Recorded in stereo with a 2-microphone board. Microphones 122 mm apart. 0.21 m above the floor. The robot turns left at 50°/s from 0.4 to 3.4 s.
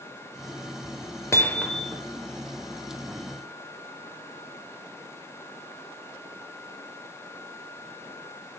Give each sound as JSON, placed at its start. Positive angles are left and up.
{"t": 1.3, "sound": "hammering", "azimuth_deg": 25, "distance_m": 3.0}